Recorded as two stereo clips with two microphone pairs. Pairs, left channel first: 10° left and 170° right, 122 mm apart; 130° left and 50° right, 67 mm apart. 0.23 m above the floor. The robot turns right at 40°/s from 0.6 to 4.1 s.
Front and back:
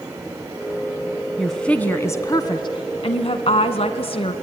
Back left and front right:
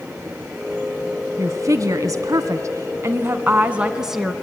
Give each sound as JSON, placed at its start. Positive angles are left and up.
{"t": 1.4, "sound": "a woman speaking", "azimuth_deg": -80, "distance_m": 1.7}